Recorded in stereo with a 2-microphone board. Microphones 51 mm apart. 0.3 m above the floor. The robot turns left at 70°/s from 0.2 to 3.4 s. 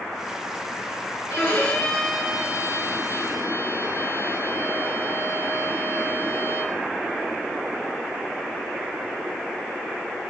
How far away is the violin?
About 5.5 m.